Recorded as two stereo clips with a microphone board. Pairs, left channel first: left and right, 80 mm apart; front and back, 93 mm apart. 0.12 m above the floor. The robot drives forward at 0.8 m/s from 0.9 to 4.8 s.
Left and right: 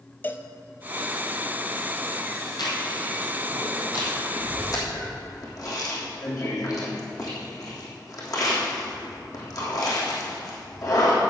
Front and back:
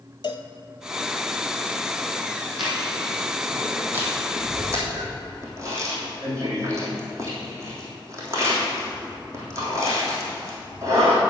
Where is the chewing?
95° left, 2.5 m; by 11.2 s 125° left, 3.5 m.